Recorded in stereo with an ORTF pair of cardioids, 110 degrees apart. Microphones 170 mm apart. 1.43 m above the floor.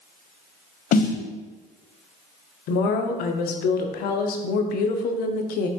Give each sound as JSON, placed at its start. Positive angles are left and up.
{"t": 0.9, "sound": "a snare drum", "azimuth_deg": 60, "distance_m": 0.9}
{"t": 2.7, "sound": "a woman speaking", "azimuth_deg": 70, "distance_m": 0.7}